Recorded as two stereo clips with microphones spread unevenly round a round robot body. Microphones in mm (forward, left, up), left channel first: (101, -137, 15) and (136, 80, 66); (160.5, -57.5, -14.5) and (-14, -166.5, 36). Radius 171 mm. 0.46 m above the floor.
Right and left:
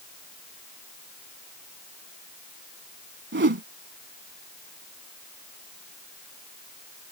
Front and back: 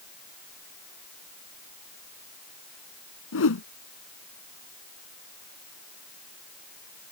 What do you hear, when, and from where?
3.3 s a whoosh: 45° left